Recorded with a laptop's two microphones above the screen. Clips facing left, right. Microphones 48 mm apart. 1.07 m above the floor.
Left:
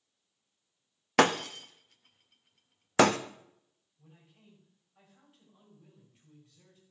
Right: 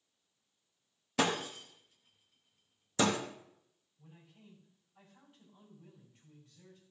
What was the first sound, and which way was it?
Breaking glass, 65° left (ahead or behind).